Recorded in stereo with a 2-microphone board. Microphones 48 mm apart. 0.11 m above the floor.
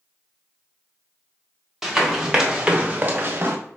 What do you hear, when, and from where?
1.8 s running footsteps: 5° right (ahead or behind), 1.5 m; by 3.6 s 50° right (ahead or behind), 1.0 m